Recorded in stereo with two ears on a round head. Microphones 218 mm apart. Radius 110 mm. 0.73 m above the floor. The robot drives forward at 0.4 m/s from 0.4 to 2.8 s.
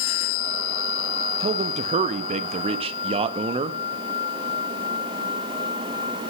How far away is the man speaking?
About 0.5 m.